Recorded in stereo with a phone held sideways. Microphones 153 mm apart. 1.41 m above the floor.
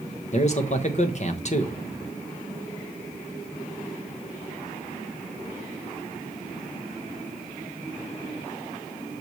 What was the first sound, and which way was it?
A man speaking, 50° left (ahead or behind).